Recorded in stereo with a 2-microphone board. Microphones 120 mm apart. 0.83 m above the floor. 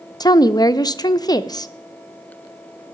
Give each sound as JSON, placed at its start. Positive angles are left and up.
{"t": 0.2, "sound": "a woman speaking", "side_deg": 35, "distance_m": 0.5}